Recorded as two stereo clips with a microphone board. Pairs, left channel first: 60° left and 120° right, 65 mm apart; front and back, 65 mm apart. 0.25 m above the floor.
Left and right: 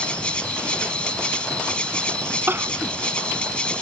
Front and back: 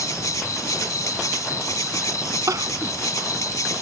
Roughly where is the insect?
Ahead.